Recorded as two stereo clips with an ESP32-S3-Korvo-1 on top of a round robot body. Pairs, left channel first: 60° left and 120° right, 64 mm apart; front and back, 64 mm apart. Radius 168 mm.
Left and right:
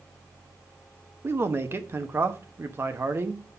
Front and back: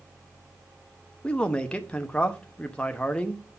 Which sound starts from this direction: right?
A man speaking, at 1.2 s.